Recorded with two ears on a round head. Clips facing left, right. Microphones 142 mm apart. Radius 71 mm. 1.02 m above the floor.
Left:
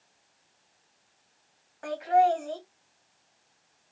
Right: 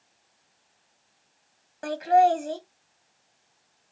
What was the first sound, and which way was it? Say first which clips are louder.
Laughter: right 3 dB; 45° right (ahead or behind).